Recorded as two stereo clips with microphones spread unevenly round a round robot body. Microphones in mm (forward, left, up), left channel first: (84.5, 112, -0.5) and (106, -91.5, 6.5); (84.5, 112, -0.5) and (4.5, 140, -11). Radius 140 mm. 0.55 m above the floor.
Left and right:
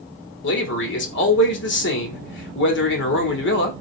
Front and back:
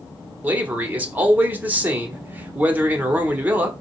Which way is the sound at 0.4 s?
100° left.